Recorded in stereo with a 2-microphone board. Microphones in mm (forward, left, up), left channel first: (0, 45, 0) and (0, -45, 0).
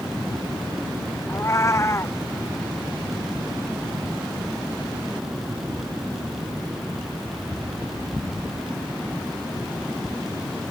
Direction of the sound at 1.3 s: 30° left (ahead or behind).